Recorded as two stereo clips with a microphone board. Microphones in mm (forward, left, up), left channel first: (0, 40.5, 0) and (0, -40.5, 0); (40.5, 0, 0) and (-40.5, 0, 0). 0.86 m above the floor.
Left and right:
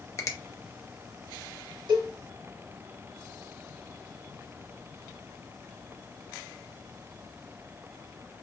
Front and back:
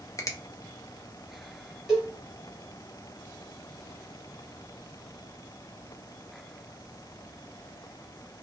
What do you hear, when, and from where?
0.2 s a finger snap: 45° left, 0.7 m
1.9 s a cowbell: 95° right, 2 m